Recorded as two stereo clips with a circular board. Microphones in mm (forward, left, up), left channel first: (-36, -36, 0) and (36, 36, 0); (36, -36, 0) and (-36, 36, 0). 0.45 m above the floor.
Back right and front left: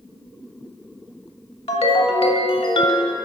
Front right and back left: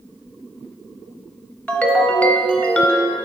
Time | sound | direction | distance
1.7 | a ringtone | 120° right | 0.8 m